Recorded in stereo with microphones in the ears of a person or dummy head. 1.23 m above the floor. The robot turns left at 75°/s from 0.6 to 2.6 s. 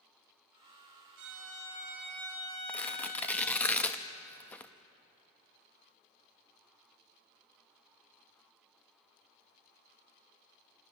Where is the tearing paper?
10° left (ahead or behind), 0.7 m.